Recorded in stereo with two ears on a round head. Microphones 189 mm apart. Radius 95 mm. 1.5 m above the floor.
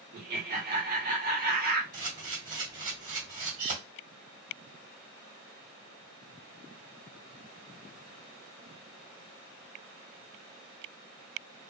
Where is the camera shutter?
40° right (ahead or behind), 1.9 m.